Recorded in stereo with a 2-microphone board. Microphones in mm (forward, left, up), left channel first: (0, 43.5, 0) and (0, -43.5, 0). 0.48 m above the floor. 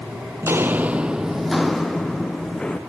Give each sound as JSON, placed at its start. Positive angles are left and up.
{"t": 0.4, "sound": "footsteps", "side_deg": -30, "distance_m": 0.6}